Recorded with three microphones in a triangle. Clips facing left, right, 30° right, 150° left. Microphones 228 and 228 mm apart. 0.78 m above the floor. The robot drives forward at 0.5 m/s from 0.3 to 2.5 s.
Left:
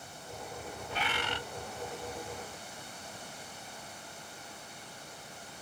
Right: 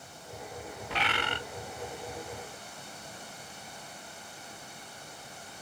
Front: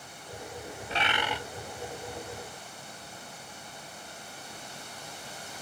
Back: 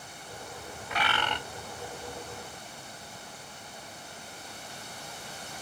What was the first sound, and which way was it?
A bird, 90° right.